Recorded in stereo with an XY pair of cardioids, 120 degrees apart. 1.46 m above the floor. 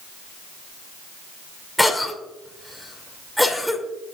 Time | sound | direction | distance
1.8 | a cough | 5° left | 2.5 m